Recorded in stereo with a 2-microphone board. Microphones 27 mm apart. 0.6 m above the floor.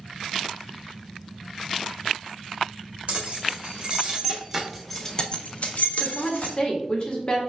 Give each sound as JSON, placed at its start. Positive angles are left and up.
{"t": 3.1, "sound": "keys jangling", "side_deg": -35, "distance_m": 1.5}
{"t": 6.0, "sound": "a woman speaking", "side_deg": 35, "distance_m": 1.0}